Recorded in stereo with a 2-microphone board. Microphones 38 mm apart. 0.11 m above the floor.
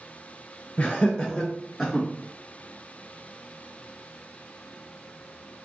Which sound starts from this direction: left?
Laughter, at 0.8 s.